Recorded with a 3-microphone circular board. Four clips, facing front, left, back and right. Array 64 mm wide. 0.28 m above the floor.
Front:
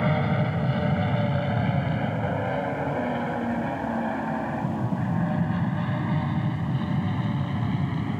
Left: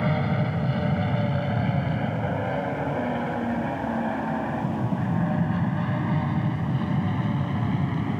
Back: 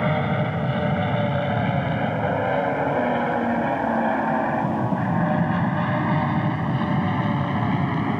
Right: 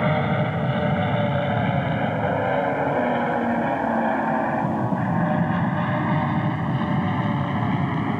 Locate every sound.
0.0 s an aircraft: 120° right; by 8.2 s 145° right